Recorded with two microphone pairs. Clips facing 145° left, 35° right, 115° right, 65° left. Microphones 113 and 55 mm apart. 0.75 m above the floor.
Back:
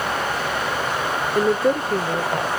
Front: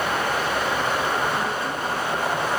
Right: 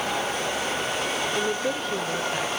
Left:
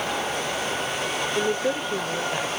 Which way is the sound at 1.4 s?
140° left.